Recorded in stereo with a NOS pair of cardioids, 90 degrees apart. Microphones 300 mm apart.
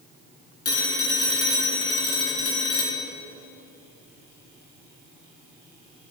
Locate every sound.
0.7 s a phone ringing: 50° left, 2.5 m